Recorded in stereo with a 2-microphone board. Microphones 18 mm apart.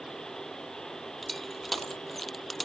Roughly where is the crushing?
Centre.